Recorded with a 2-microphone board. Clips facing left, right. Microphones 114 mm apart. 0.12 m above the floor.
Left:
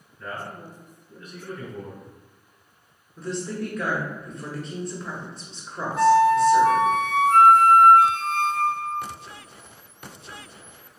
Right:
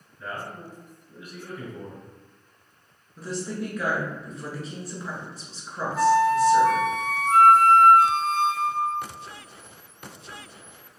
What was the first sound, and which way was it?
A man speaking, 10° right (ahead or behind).